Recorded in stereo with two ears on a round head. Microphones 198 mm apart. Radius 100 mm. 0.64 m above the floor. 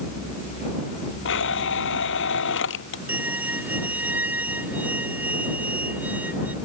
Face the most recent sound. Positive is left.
turn(degrees=-10)  # may be behind; listen again after turning